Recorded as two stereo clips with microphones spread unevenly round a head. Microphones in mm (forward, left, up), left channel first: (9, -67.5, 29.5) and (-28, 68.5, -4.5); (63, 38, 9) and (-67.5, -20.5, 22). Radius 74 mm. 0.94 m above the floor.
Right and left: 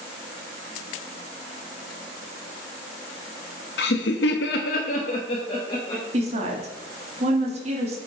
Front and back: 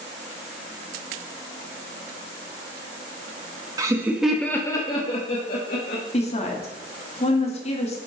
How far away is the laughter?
About 1.1 m.